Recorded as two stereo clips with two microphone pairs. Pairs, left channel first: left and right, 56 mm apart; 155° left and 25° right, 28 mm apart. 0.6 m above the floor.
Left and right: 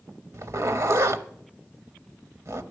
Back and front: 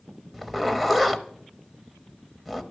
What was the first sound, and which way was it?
A zipper, 110° right.